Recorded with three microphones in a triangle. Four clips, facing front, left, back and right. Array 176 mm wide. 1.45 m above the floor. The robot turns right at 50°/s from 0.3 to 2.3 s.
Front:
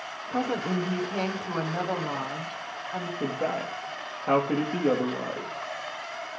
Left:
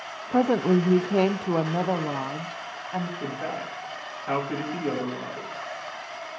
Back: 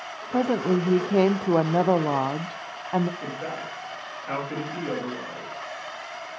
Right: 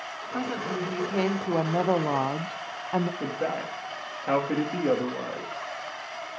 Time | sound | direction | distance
0.3 | a woman speaking | 110° left | 0.7 m
3.2 | a man speaking | 40° right | 3 m